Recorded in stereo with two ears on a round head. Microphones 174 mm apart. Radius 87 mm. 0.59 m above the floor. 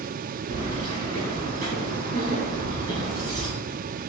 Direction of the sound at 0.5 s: 40° right (ahead or behind).